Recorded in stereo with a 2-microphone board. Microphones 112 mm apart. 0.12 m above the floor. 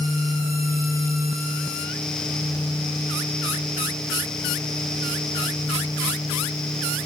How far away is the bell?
I don't hear a bell.